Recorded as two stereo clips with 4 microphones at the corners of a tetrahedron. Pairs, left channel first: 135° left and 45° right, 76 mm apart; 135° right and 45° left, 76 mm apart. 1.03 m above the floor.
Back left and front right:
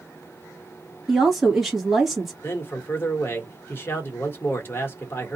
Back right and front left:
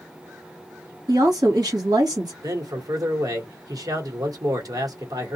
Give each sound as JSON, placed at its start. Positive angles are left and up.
{"t": 1.1, "sound": "a woman speaking", "azimuth_deg": 40, "distance_m": 1.6}
{"t": 2.4, "sound": "a man speaking", "azimuth_deg": 75, "distance_m": 1.0}